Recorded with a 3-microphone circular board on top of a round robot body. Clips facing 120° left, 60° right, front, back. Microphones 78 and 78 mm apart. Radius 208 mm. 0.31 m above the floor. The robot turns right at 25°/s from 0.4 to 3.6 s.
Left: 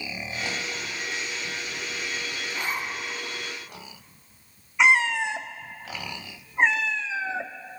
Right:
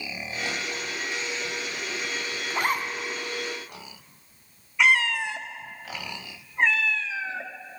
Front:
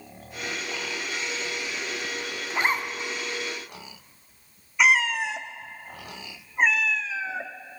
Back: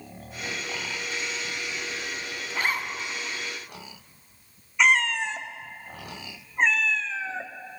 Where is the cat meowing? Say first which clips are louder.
Left 2 dB, front 1 dB; 80° left, 0.5 m.